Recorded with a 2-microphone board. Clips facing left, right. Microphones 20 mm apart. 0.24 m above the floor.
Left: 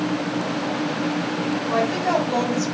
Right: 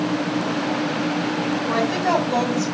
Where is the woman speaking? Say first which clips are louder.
Even; 35° right (ahead or behind), 2 m; by 2.7 s 5° left (ahead or behind), 1.4 m.